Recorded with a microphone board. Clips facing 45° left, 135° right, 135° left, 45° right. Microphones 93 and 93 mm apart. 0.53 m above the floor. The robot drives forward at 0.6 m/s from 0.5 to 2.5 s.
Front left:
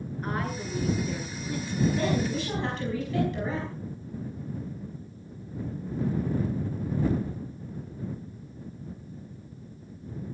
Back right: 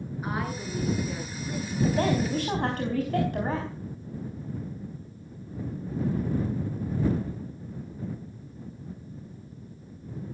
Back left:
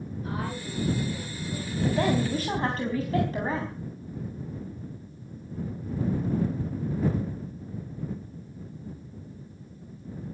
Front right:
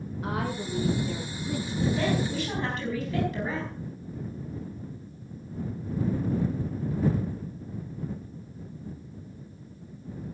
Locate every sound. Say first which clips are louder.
0.2 s a woman speaking: even, front right 3 dB; 50° right, 7 m; by 1.7 s 55° right, 6.5 m
1.8 s a woman speaking: back right 1 dB, back left 2 dB; 175° right, 4 m